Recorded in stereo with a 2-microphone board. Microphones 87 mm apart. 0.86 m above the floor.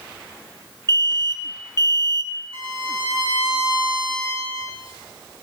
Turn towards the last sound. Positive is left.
turn(degrees=-75)  # may be behind; listen again after turning